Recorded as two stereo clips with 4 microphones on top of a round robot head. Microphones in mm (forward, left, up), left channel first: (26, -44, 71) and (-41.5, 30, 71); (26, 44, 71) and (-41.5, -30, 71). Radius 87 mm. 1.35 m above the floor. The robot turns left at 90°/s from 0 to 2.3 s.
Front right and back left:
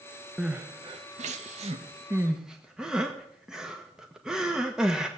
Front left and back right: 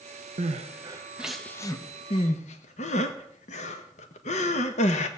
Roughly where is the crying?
Behind right.